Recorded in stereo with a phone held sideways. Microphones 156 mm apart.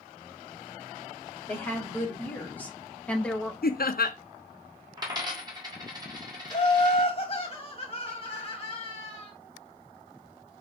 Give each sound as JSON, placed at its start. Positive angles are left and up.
{"t": 1.5, "sound": "a woman speaking", "side_deg": 15, "distance_m": 2.5}
{"t": 3.6, "sound": "laughter", "side_deg": 70, "distance_m": 0.7}
{"t": 5.0, "sound": "a dropped coin", "side_deg": -25, "distance_m": 1.5}
{"t": 6.5, "sound": "laughter", "side_deg": 35, "distance_m": 1.6}